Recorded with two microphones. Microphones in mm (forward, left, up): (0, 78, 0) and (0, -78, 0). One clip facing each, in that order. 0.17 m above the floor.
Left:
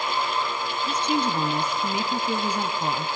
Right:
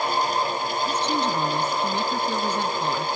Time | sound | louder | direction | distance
0.9 | a woman speaking | left 2 dB | 10° left (ahead or behind) | 1.4 m